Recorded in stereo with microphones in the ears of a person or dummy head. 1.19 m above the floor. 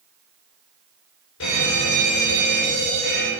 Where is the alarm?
70° left (ahead or behind), 6.5 m.